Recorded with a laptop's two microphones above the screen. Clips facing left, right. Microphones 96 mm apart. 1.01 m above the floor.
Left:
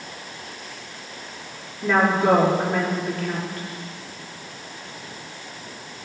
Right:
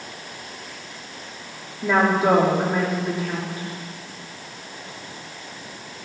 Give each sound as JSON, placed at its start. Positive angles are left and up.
{"t": 1.8, "sound": "a woman speaking", "side_deg": -10, "distance_m": 2.0}